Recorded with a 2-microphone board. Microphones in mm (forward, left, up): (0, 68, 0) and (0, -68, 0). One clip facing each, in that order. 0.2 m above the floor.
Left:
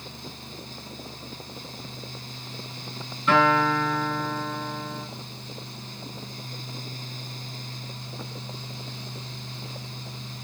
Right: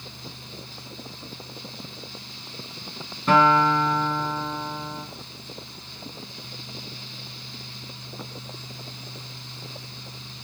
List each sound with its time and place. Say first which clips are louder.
3.3 s a guitar: right 2 dB; 40° right (ahead or behind), 2 m